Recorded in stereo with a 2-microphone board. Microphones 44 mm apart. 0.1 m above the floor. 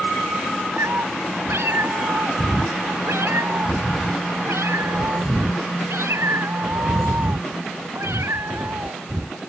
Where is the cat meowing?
80° right; by 9.4 s 90° right.